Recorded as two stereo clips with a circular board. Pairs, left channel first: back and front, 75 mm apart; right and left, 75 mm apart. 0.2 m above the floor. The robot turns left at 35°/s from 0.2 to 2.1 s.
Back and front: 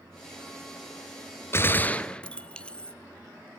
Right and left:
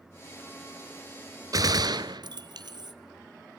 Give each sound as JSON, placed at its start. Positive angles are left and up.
{"t": 1.5, "sound": "a gunshot", "azimuth_deg": 125, "distance_m": 1.0}